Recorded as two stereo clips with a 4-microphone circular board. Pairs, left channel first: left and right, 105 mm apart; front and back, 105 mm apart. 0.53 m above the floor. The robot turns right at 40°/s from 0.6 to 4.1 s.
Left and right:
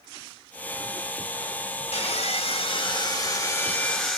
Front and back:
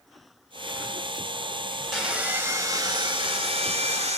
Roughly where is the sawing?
Left.